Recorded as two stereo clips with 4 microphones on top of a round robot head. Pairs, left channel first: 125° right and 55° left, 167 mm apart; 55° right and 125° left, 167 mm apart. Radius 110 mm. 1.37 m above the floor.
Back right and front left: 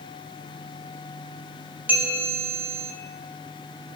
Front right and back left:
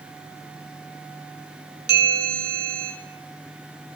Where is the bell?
130° left, 0.7 m.